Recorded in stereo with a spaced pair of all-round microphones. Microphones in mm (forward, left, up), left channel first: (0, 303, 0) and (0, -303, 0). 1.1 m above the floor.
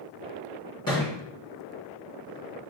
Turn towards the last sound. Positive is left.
turn(degrees=30)  # may be behind; listen again after turning